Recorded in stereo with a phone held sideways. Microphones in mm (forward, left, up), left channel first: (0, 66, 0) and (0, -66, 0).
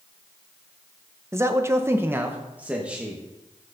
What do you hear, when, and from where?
1.3 s a man speaking: 20° right (ahead or behind), 0.9 m; by 3.2 s 10° right (ahead or behind), 1.7 m